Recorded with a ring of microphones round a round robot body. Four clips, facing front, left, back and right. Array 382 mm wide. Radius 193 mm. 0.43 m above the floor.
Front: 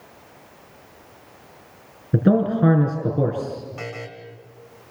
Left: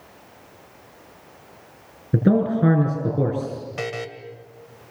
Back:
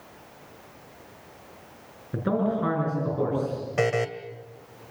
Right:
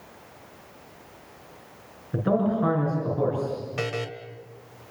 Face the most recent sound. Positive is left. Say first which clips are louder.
# left 2 dB, back 10 dB
turn(degrees=-170)